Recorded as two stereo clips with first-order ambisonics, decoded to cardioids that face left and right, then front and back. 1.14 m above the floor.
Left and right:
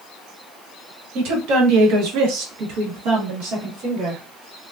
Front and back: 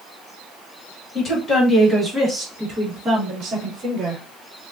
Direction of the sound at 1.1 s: 60° right.